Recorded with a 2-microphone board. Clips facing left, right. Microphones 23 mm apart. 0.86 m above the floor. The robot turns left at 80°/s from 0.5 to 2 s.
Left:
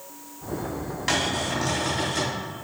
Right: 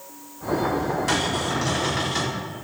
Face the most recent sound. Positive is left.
turn(degrees=-45)